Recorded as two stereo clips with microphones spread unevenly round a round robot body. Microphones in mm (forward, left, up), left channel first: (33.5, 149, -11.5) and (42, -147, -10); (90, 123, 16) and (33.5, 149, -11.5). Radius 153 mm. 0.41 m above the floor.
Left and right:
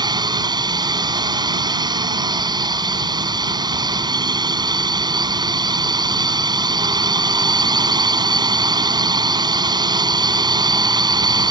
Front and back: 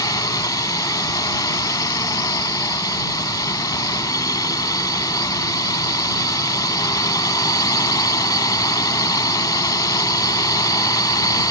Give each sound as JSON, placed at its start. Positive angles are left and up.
{"t": 0.0, "sound": "a drone", "azimuth_deg": -15}